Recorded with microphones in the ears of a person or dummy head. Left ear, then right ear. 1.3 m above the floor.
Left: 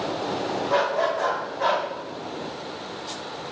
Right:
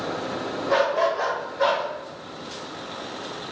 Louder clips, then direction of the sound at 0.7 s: Right 2 dB; 45° right (ahead or behind).